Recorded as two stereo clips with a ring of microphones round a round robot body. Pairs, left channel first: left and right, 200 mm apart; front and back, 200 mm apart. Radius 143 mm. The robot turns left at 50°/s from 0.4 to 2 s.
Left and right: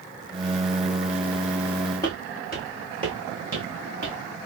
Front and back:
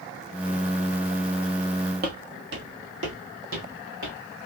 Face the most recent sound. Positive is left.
turn(degrees=-140)